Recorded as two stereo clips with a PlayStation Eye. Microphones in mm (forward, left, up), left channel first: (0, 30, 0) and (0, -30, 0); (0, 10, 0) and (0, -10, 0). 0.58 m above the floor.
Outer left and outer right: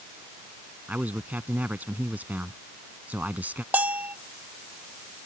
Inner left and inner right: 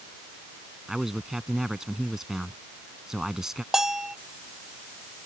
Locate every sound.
0.9 s a man speaking: 30° right (ahead or behind)
3.7 s a bell: 30° right (ahead or behind)